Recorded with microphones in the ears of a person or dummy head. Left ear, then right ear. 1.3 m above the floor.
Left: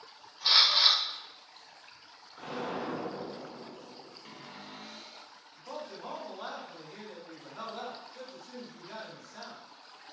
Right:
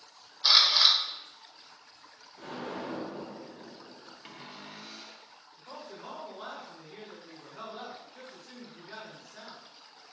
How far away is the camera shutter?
About 0.7 m.